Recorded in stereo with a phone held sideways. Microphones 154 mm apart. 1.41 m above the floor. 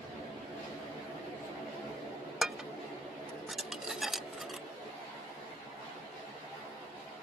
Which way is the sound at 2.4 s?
5° right (ahead or behind).